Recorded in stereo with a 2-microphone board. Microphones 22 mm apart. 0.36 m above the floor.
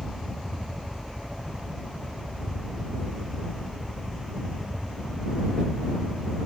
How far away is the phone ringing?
No phone ringing in this recording.